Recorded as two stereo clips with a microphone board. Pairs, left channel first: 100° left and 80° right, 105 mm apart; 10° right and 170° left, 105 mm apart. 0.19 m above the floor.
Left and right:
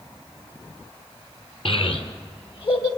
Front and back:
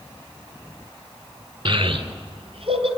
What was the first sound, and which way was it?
A child speaking, 130° left.